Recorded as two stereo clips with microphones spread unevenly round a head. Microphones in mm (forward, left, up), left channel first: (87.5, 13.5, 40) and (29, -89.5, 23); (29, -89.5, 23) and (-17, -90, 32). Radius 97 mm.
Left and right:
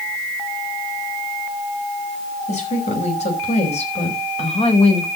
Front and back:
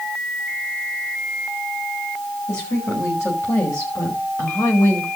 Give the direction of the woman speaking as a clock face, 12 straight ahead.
11 o'clock.